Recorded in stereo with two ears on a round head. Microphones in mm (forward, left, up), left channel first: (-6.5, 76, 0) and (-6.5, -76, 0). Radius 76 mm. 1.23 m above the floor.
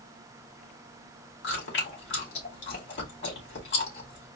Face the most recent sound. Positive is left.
turn(degrees=70)  # may be behind; listen again after turning